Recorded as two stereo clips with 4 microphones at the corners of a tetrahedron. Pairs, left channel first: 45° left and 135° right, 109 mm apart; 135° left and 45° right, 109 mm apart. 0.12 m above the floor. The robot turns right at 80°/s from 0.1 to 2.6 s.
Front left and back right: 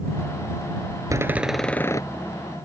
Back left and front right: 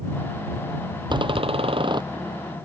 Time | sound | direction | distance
1.1 | a door slam | 80° right | ?